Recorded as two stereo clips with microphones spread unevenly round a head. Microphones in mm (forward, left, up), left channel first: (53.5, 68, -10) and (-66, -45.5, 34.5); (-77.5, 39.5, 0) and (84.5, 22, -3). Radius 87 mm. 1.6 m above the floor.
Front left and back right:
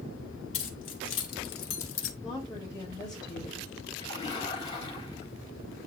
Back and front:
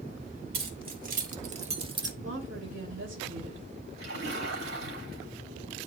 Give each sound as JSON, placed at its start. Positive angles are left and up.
{"t": 0.5, "sound": "keys jangling", "azimuth_deg": 20, "distance_m": 2.5}
{"t": 2.2, "sound": "a woman speaking", "azimuth_deg": -25, "distance_m": 3.0}
{"t": 4.0, "sound": "a splash", "azimuth_deg": -15, "distance_m": 3.5}